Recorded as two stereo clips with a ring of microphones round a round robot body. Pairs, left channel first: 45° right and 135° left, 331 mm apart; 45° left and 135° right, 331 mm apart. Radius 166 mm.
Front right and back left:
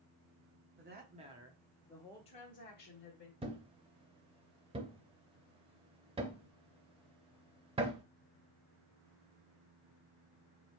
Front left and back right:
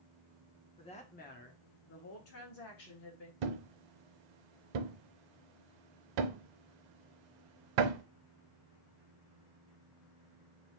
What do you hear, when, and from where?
0.8 s a woman speaking: 110° left, 1.1 m; by 3.3 s 5° left, 1.8 m
3.4 s a thud: 150° right, 0.6 m